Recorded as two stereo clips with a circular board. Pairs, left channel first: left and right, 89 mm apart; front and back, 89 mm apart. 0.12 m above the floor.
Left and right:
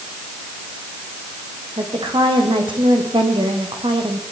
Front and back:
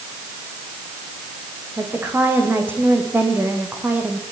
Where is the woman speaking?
115° right, 7.5 m; by 4.2 s 110° right, 5.5 m.